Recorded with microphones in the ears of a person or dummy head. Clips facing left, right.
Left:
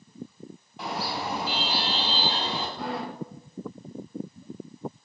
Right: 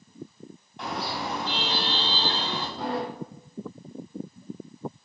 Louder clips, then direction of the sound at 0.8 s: Even; 5° left (ahead or behind).